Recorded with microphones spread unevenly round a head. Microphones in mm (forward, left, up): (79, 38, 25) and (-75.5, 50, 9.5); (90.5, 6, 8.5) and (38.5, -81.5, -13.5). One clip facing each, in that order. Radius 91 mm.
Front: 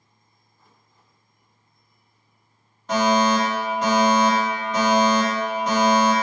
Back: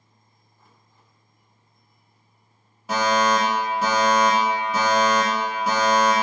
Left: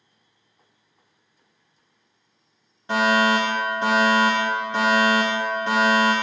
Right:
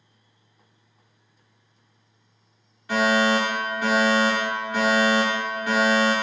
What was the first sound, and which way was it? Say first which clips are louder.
A fire alarm: front 2 dB, left 1 dB; 120° left.